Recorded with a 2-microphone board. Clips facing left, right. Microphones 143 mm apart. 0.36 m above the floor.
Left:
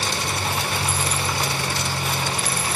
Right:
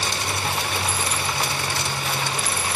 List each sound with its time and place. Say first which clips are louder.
0.0 s an engine running: left 1 dB; 35° left (ahead or behind), 6.5 m